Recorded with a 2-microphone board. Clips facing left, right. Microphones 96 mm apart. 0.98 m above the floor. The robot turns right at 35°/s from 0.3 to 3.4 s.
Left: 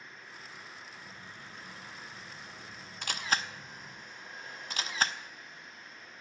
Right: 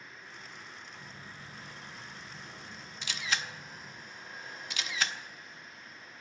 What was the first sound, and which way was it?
A phone buzzing, 70° right.